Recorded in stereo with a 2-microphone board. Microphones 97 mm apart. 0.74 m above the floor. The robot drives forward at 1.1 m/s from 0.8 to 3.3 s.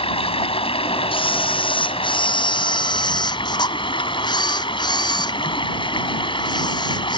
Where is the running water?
80° left; by 7.2 s 60° left (ahead or behind).